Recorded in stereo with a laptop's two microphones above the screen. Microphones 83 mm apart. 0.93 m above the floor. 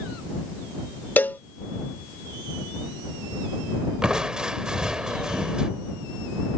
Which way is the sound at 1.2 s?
20° left (ahead or behind).